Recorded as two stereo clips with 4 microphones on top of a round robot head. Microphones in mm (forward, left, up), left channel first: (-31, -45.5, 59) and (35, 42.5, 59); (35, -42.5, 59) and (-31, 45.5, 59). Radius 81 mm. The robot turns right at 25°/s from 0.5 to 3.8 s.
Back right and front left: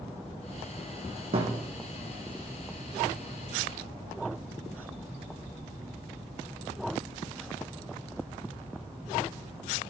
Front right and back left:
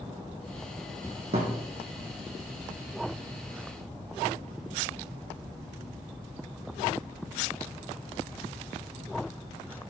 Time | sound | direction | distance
1.3 | a thud | 90° left | 3 m